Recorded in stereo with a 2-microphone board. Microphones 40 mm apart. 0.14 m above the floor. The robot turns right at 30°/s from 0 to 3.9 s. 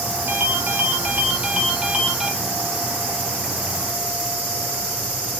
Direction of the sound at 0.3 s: 65° right.